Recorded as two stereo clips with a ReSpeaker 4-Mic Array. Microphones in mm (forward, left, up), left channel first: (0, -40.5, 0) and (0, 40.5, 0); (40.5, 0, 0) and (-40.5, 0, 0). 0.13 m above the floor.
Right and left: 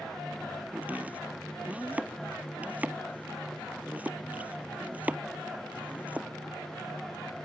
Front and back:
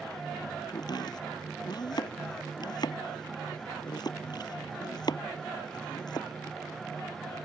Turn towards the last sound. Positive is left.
turn(degrees=20)